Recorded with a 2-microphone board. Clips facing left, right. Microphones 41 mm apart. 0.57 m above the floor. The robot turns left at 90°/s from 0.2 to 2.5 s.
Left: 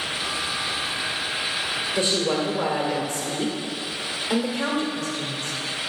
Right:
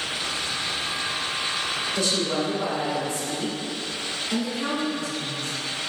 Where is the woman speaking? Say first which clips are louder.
Left 3 dB; 155° left, 2.0 m; by 5.6 s 105° left, 2.0 m.